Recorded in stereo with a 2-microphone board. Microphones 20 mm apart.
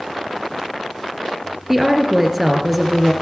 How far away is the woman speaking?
About 3 m.